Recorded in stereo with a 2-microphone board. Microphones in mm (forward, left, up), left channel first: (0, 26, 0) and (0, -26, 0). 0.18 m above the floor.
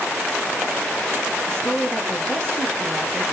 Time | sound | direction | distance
1.5 | a woman speaking | 20° left (ahead or behind) | 1.1 m